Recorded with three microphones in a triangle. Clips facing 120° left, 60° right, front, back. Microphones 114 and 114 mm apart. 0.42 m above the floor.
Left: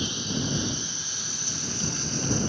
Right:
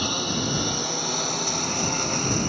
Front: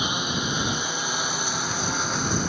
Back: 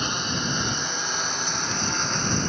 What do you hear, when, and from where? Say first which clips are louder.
0.0 s a lawn mower: right 4 dB, front 1 dB; 85° right